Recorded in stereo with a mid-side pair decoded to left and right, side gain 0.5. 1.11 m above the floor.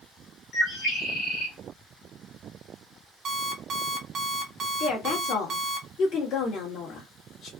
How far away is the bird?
About 1.5 m.